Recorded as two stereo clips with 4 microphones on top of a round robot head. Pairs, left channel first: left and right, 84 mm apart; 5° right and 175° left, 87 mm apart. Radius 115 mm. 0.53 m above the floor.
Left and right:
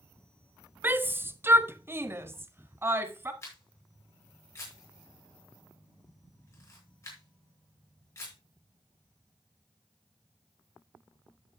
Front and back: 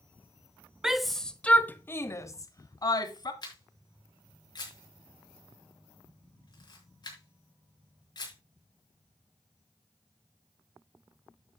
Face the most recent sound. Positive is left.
turn(degrees=35)